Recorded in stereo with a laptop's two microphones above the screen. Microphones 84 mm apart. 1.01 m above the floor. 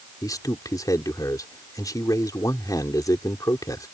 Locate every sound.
0.2 s a man speaking: 45° left (ahead or behind)